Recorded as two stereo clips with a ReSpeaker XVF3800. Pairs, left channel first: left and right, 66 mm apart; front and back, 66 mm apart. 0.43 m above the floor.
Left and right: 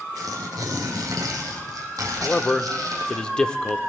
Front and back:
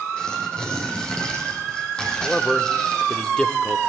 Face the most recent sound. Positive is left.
turn(degrees=45)